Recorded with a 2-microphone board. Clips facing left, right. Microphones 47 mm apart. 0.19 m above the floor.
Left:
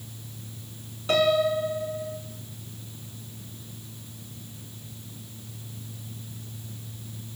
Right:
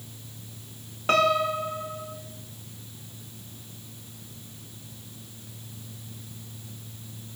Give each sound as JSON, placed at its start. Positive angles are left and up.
{"t": 1.1, "sound": "a piano", "side_deg": -50, "distance_m": 2.0}